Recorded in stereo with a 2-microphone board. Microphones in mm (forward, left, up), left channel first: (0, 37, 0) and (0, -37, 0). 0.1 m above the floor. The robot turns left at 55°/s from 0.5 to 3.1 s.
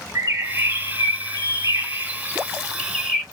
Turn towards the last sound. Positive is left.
turn(degrees=170)